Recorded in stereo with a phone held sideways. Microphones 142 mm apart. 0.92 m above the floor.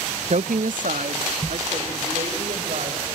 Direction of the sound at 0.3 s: 55° right (ahead or behind).